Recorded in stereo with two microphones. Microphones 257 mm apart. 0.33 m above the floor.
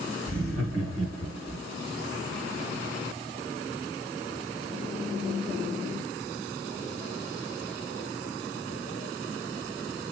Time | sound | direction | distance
0.3 | laughter | 55° right (ahead or behind) | 1.7 m